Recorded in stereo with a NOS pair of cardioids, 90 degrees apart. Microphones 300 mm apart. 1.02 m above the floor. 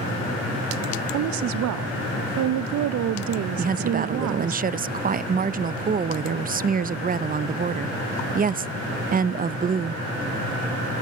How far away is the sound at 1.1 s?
About 0.8 m.